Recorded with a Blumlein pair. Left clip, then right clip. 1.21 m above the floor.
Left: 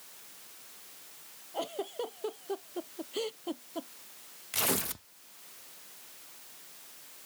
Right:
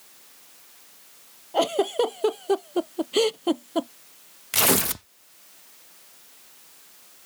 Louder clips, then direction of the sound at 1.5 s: Right 14 dB; 35° right.